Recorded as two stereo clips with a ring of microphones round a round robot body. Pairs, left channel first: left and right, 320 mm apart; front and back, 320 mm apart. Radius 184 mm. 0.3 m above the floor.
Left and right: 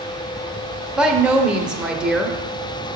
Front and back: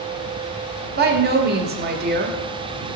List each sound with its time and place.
1.0 s a woman speaking: 175° right, 0.9 m